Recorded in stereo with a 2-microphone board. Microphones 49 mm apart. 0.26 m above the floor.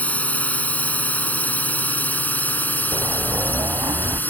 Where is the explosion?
90° right.